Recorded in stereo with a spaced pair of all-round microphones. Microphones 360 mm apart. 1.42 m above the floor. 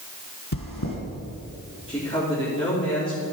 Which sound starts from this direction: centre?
A man speaking, at 1.9 s.